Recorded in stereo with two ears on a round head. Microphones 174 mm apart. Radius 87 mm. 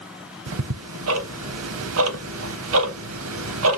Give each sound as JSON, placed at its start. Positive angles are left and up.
{"t": 0.5, "sound": "ticking", "side_deg": -75, "distance_m": 0.8}